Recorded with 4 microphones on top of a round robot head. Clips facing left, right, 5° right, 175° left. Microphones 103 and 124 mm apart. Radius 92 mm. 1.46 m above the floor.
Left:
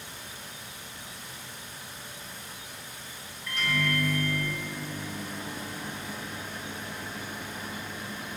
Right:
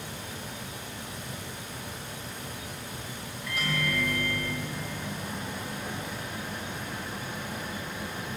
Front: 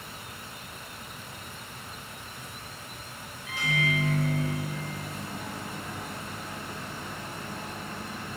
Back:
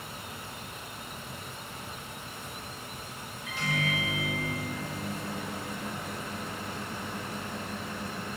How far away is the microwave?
About 6 m.